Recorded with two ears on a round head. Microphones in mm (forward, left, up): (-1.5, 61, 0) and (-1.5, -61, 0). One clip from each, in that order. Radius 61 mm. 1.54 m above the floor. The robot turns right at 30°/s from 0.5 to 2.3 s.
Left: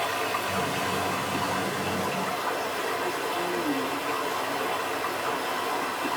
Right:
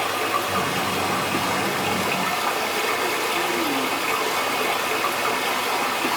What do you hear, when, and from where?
0.0 s running water: 155° right, 2 m; by 6.2 s 100° right, 2 m